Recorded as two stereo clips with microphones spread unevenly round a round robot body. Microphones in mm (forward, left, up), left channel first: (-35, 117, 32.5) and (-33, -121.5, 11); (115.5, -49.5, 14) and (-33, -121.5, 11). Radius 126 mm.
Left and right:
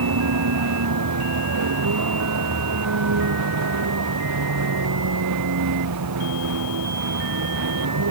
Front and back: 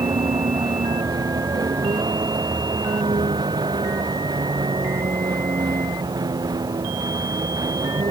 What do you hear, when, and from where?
0.0 s a vehicle: 90° right